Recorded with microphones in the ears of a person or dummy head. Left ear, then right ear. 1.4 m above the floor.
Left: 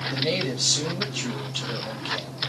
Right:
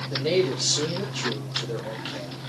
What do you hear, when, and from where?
0.1 s a man speaking: 5° left (ahead or behind), 1.5 m